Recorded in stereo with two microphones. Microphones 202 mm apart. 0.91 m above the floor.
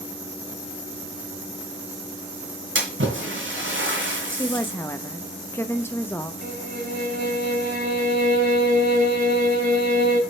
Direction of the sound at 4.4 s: 10° left (ahead or behind).